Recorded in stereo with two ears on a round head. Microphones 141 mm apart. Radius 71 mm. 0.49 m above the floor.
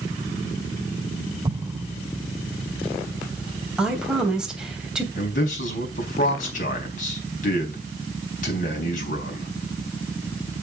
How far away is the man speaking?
About 4 m.